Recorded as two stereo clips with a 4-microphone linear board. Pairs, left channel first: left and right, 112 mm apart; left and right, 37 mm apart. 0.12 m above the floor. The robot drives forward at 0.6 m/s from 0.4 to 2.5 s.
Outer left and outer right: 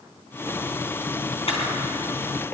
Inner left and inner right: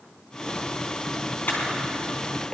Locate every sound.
1.5 s a camera shutter: 60° left (ahead or behind), 3.5 m; by 1.7 s 55° left (ahead or behind), 3.5 m